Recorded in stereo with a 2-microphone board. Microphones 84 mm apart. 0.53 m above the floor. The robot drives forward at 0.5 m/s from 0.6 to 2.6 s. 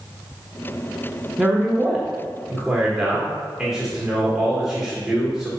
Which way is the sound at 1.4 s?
5° right (ahead or behind).